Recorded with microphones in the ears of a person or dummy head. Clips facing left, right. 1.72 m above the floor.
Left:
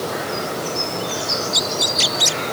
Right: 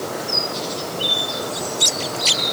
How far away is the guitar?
I don't hear a guitar.